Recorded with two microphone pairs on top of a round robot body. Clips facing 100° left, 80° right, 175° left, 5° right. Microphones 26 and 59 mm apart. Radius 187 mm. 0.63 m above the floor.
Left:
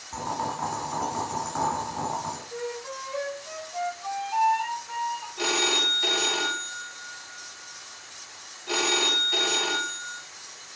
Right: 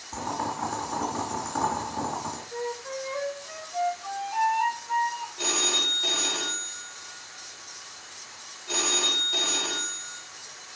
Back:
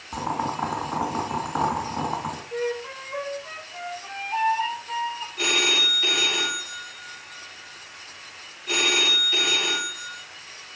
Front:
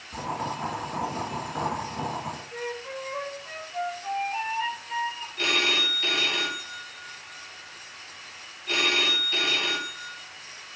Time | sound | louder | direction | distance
0.1 | boiling | left 1 dB, back 4 dB | 175° right | 2.5 m
2.5 | a flute | right 1 dB, back 9 dB | 165° left | 3.5 m
5.4 | a phone ringing | left 2 dB, back 1 dB | 95° left | 2 m